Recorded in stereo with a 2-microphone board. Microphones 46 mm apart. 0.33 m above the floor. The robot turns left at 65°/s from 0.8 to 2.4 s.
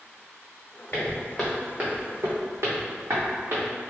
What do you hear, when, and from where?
0.9 s footsteps: 50° left (ahead or behind), 1.1 m; by 3.7 s 60° right (ahead or behind), 1.3 m